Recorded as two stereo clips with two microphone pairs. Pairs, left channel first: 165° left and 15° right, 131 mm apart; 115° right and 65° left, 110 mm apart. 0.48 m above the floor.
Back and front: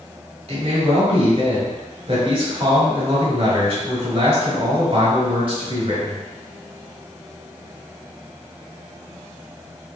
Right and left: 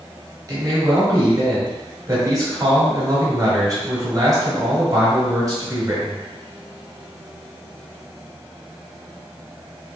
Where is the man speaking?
15° left, 1.9 m.